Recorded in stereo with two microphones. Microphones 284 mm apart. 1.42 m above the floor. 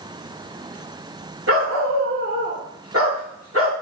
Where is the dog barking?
50° right (ahead or behind), 1.8 m.